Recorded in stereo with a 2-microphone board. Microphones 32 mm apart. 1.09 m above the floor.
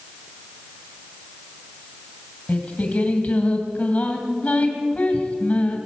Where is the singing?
50° left (ahead or behind), 2 m.